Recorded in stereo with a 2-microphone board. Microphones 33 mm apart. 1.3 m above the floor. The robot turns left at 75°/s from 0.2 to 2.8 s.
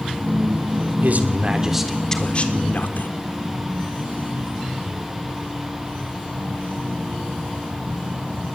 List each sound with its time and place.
1.0 s a man speaking: 115° right, 3 m; by 3.1 s 115° left, 3 m